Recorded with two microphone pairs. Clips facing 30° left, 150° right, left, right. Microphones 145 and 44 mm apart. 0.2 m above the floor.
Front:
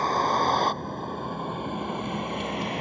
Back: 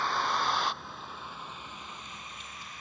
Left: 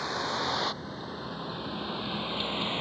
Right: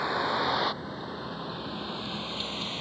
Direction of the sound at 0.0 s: 15° right.